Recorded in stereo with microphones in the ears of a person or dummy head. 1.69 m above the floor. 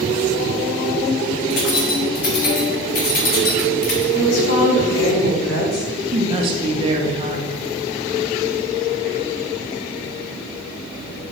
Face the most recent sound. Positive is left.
turn(degrees=-30)  # may be behind; listen again after turning